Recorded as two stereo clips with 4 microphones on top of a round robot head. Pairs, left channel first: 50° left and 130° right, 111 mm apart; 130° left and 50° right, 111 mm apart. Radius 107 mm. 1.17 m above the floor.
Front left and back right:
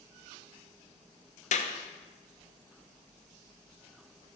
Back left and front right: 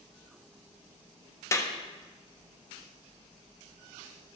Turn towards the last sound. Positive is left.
turn(degrees=65)